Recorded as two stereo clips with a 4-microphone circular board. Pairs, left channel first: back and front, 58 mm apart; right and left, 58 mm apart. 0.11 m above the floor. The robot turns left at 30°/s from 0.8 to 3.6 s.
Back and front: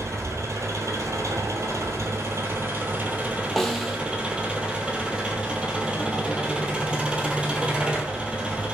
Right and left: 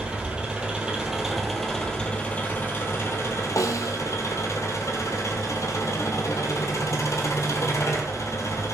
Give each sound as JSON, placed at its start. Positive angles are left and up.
{"t": 0.0, "sound": "an engine running", "azimuth_deg": 20, "distance_m": 0.8}
{"t": 3.6, "sound": "a snare drum", "azimuth_deg": -90, "distance_m": 0.6}